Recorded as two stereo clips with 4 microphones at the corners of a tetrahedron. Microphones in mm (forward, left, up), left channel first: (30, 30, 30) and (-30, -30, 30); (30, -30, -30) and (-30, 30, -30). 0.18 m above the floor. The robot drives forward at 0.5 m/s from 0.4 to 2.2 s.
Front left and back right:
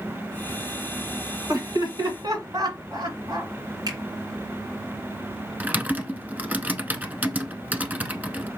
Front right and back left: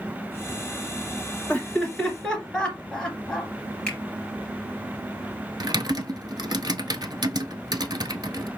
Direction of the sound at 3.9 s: 125° right.